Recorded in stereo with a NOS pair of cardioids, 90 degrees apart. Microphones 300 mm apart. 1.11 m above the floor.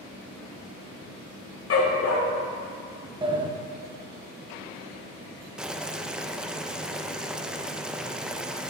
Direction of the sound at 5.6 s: 5° right.